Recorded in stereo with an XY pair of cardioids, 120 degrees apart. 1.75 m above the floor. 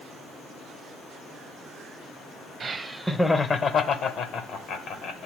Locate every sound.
2.6 s laughter: 30° right, 0.5 m; by 5.3 s 70° left, 1.3 m